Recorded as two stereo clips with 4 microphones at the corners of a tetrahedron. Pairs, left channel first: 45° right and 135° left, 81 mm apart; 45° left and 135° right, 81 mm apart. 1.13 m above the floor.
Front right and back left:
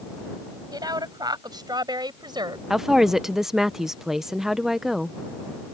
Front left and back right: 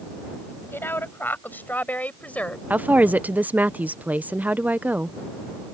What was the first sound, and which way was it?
A woman speaking, 105° left.